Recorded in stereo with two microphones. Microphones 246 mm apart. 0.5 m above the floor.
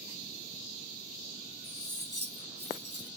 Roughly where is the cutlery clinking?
Left.